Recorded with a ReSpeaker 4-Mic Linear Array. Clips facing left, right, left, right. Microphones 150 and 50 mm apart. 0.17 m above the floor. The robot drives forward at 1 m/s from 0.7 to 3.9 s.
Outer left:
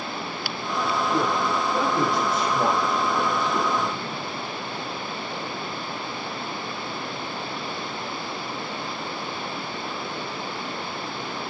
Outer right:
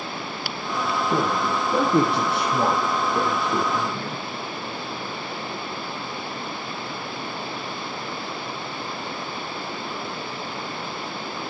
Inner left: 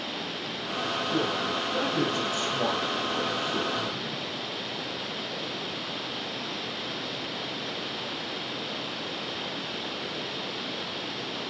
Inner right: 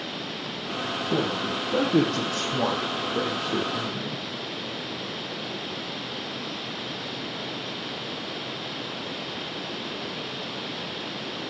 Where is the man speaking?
55° right (ahead or behind), 4.5 m; by 4.2 s 70° right (ahead or behind), 4 m.